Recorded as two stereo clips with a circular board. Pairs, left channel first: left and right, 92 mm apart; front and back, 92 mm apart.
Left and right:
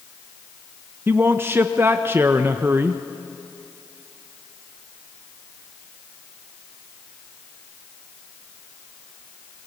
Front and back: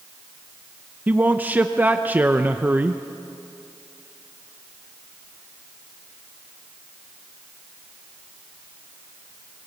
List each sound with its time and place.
1.1 s a man speaking: 125° right, 0.6 m